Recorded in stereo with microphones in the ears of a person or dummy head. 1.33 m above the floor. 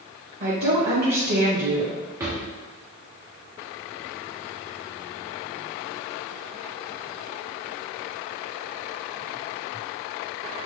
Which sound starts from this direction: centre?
A drawer, at 2.2 s.